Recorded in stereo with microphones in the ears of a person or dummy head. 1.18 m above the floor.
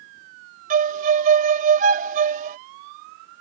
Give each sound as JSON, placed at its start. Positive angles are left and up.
{"t": 0.7, "sound": "a violin", "side_deg": -50}